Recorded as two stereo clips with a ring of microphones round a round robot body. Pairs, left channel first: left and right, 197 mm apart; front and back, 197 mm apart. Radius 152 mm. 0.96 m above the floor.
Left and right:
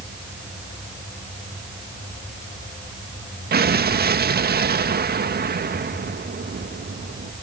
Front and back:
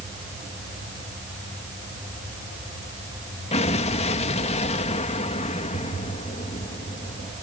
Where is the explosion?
60° right.